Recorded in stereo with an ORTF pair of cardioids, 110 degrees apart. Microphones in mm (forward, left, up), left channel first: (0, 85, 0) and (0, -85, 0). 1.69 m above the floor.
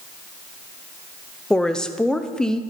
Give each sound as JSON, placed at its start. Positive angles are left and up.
{"t": 1.5, "sound": "a woman speaking", "azimuth_deg": 5, "distance_m": 0.9}